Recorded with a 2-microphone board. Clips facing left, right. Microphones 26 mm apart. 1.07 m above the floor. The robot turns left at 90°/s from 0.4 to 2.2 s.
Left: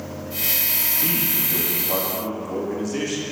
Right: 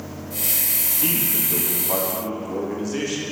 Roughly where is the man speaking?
Ahead right.